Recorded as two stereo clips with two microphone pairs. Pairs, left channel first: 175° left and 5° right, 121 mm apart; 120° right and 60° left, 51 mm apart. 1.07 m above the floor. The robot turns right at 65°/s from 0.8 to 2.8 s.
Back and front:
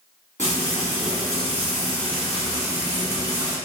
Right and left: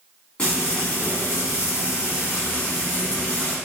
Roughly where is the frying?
Behind.